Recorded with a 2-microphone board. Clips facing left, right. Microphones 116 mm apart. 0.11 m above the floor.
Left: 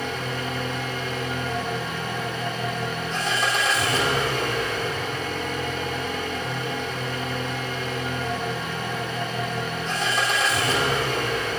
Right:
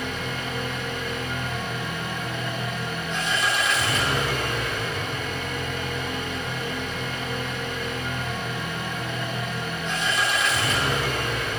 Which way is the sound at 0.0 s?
35° left (ahead or behind).